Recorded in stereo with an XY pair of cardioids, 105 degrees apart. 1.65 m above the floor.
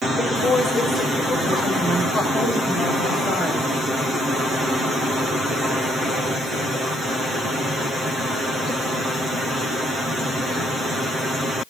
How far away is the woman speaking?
About 5 m.